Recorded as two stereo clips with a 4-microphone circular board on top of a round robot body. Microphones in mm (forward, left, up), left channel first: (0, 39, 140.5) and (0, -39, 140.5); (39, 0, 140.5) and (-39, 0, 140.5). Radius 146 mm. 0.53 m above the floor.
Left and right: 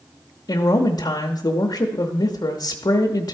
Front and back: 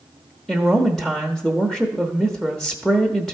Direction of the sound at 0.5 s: 90° left.